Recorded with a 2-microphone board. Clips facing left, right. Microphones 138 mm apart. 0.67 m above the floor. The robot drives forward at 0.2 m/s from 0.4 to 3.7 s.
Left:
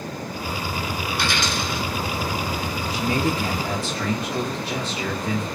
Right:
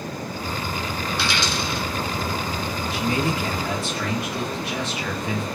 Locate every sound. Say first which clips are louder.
1.1 s a dropped coin: even; 50° left (ahead or behind), 1.2 m
2.9 s a man speaking: left 1 dB; 35° left (ahead or behind), 1.1 m; by 5.5 s 30° left (ahead or behind), 1.2 m